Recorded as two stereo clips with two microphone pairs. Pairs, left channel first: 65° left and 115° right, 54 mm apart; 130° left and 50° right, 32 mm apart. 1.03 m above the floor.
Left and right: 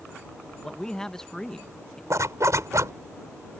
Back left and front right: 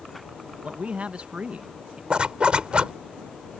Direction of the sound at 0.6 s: 5° right.